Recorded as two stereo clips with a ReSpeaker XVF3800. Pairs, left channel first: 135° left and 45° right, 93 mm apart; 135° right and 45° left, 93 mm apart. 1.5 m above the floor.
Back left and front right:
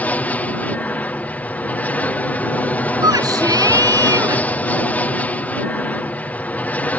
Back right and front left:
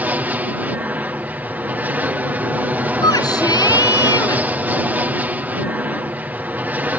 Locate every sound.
0.0 s an aircraft: 90° left
3.0 s a shout: 90° right